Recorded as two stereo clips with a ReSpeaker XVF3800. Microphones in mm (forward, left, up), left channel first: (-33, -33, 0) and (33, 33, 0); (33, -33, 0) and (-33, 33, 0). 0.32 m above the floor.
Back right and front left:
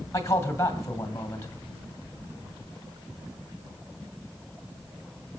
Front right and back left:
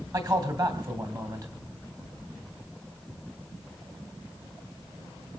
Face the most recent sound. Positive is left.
turn(degrees=175)